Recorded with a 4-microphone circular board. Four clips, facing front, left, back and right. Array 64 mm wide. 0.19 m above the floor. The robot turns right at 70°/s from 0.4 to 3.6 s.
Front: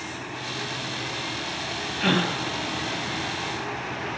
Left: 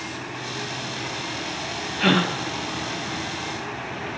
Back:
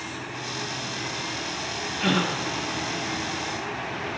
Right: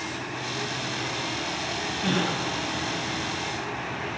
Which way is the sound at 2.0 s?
90° left.